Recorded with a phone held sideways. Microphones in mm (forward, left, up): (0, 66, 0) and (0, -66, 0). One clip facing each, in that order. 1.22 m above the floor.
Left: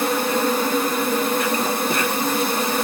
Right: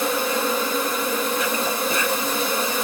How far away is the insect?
About 1.5 m.